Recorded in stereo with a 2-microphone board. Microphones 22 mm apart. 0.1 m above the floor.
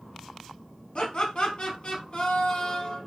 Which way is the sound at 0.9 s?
55° left (ahead or behind).